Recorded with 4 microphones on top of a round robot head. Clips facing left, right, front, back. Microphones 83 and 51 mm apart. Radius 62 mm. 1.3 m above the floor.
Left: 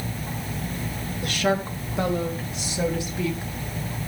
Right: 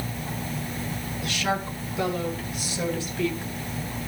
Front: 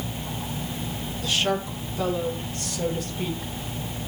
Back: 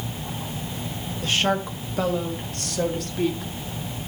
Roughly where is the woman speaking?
Behind left.